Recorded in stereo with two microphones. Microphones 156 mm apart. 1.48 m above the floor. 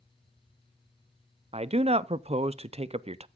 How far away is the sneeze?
I don't hear a sneeze.